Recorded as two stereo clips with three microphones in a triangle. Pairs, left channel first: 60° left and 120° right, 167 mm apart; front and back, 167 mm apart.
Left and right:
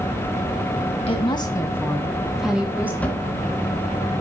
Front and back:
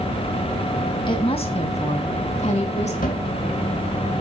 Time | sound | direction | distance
1.1 | a woman speaking | 40° left | 1.7 m
3.0 | a cupboard door | 20° right | 2.5 m